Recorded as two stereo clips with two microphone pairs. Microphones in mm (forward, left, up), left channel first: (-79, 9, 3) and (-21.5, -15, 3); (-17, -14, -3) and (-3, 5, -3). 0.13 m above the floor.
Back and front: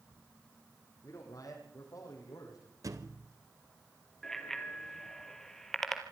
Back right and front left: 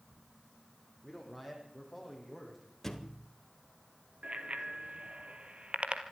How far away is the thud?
About 2 m.